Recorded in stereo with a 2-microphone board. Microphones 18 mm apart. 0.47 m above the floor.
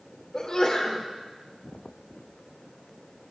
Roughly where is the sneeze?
Left.